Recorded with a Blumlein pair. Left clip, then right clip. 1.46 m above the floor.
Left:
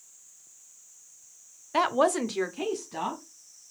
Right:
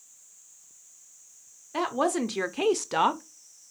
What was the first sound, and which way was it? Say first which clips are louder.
A woman speaking: left 3 dB; 20° left.